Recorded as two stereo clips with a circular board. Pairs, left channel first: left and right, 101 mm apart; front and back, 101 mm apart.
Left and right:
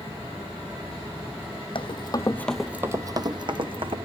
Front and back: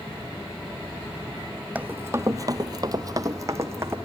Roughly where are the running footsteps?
Left.